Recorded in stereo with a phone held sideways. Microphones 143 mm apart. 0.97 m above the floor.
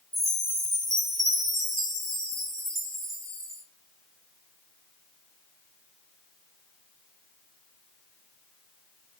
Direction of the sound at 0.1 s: 55° right (ahead or behind).